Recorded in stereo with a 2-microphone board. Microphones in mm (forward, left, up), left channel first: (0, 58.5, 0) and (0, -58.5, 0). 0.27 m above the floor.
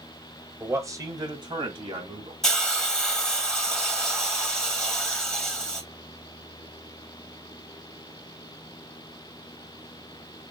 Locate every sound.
0.6 s a man speaking: 20° right (ahead or behind), 1.4 m; by 2.3 s 55° right (ahead or behind), 2.5 m
2.4 s a hiss: 5° left (ahead or behind), 1.7 m